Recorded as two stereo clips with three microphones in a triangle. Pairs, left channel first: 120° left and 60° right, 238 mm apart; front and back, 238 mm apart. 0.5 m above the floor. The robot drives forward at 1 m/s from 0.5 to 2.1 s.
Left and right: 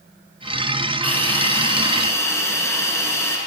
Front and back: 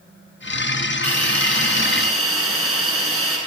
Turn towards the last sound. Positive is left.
turn(degrees=-160)